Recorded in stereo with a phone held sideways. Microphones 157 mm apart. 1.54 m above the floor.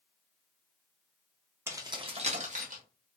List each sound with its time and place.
1.7 s keys jangling: 15° right (ahead or behind), 0.6 m; by 2.8 s 55° right (ahead or behind), 0.9 m